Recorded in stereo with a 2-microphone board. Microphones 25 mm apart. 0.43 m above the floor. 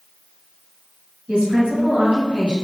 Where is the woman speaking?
60° right (ahead or behind), 1.8 m.